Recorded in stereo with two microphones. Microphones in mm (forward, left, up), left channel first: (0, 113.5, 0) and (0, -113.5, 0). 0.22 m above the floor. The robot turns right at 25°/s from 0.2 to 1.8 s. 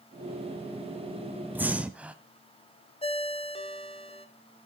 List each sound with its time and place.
1.6 s breathing: 10° right (ahead or behind), 0.6 m; by 2.1 s 5° right (ahead or behind), 0.6 m
3.0 s a ringtone: 25° left (ahead or behind), 0.7 m